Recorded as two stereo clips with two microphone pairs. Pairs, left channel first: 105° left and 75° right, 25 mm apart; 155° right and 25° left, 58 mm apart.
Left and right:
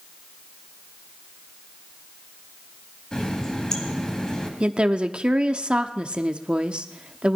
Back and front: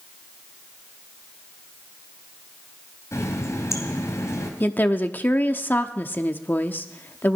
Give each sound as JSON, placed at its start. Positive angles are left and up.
{"t": 3.1, "sound": "a running tap", "azimuth_deg": 165, "distance_m": 2.5}
{"t": 4.6, "sound": "a woman speaking", "azimuth_deg": -110, "distance_m": 0.9}